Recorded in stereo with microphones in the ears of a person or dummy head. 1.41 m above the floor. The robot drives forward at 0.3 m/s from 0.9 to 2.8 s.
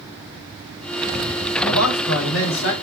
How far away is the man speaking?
About 1.4 m.